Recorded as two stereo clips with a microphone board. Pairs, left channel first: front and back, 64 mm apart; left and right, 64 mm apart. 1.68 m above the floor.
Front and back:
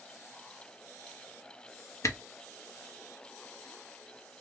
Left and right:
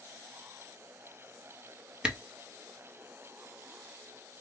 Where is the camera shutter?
20° right, 0.7 m.